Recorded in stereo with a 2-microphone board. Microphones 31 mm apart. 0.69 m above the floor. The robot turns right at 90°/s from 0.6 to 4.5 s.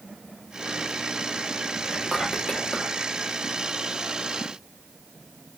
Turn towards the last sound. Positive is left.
turn(degrees=-115)